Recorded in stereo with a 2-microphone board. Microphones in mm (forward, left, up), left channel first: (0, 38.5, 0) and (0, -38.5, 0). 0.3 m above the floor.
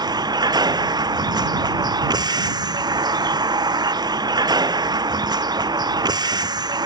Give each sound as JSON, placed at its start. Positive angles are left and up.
{"t": 0.0, "sound": "a vehicle", "side_deg": -70}